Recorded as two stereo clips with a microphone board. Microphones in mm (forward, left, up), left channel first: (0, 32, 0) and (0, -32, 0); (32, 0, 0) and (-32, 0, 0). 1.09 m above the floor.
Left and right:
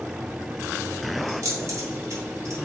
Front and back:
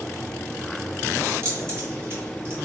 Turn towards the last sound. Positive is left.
turn(degrees=-130)